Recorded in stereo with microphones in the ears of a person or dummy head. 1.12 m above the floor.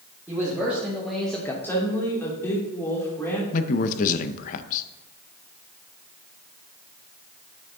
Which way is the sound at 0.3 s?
5° right (ahead or behind).